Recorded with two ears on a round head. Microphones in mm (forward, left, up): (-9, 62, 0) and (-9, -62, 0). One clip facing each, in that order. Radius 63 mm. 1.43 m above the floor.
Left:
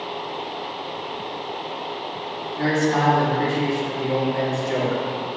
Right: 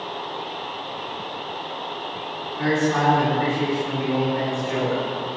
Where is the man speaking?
40° left (ahead or behind), 2.5 m.